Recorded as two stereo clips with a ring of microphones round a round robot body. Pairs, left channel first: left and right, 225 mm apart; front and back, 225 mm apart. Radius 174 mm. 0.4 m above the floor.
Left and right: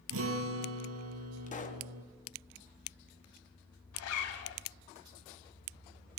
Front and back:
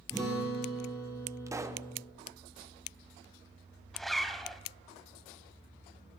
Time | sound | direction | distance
0.1 | a guitar | 80° right | 1.7 m
1.5 | a pop | 110° left | 0.9 m
3.9 | a zipper | 90° left | 0.9 m